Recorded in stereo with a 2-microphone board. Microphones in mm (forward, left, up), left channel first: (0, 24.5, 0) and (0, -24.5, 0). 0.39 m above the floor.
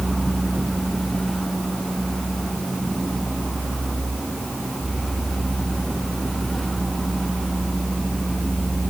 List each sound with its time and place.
Only background noise.